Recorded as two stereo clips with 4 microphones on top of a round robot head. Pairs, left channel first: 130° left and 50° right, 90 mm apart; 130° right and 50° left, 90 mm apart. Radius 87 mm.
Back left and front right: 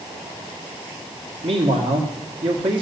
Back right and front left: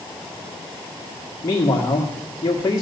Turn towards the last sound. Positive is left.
turn(degrees=-75)